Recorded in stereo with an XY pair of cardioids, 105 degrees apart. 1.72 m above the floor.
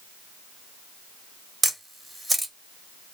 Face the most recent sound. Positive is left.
turn(degrees=-15)